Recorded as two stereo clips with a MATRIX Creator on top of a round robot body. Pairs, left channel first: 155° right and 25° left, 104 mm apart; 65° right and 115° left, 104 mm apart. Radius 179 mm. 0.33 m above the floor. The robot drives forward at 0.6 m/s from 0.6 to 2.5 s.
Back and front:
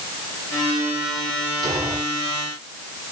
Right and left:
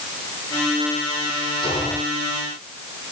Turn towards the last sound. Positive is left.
turn(degrees=-30)